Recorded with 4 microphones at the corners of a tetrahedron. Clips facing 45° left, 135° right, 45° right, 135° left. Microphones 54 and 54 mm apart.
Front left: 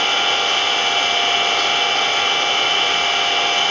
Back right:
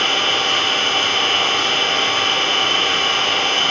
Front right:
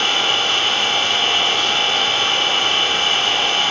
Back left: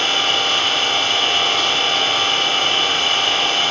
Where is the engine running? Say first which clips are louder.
Even, even; 110° right, 7 m.